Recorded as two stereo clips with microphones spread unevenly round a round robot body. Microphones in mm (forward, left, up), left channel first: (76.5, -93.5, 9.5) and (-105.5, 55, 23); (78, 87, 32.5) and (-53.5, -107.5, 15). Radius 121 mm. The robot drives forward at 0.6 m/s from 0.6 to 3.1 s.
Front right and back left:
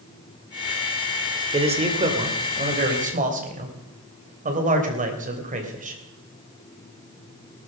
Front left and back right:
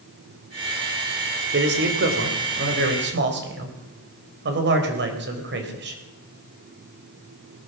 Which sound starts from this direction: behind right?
A man speaking, at 1.5 s.